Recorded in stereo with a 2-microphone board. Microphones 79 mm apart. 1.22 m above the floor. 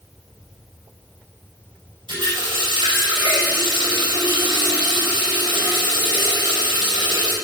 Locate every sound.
2.1 s a running tap: 90° right, 5 m